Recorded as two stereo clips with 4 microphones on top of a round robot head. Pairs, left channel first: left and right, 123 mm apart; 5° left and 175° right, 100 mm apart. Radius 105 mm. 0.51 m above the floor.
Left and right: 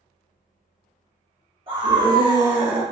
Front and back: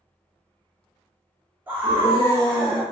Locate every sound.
1.7 s a scream: 115° right, 1.6 m; by 2.8 s 160° right, 1.6 m